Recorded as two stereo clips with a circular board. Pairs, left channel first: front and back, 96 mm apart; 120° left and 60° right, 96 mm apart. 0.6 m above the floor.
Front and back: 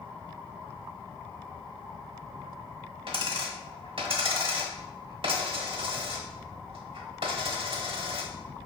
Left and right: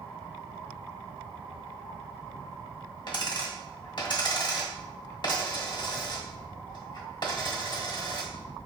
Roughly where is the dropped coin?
Behind left.